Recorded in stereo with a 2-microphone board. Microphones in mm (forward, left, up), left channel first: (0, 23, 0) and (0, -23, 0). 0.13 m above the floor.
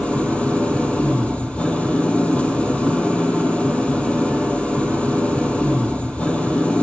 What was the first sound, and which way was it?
An engine running, 25° left (ahead or behind).